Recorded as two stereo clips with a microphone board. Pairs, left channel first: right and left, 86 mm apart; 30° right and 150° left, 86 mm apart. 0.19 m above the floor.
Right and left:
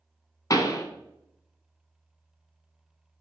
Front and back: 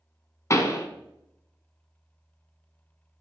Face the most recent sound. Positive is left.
turn(degrees=-65)